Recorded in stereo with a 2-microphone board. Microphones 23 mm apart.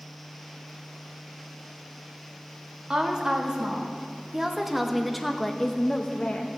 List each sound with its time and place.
2.9 s a woman speaking: 35° right (ahead or behind), 2.0 m; by 6.5 s 50° left (ahead or behind), 1.0 m